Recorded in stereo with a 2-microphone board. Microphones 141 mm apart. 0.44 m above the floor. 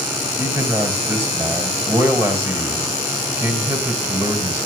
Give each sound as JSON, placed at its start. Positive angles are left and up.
{"t": 0.4, "sound": "a man speaking", "side_deg": -20, "distance_m": 3.0}